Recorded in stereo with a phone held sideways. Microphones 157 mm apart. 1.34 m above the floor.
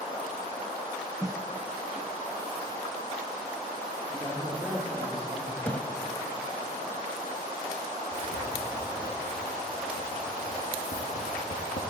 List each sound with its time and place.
1.2 s a snare drum: 20° right (ahead or behind), 0.6 m
4.1 s a woman speaking: 25° right (ahead or behind), 4.5 m
5.6 s a thud: 10° left (ahead or behind), 1.4 m
8.1 s writing: 80° left, 3 m